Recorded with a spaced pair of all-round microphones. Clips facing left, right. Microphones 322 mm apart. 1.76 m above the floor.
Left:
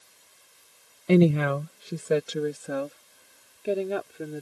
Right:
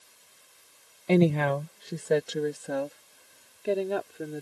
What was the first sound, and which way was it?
A woman speaking, 15° left (ahead or behind).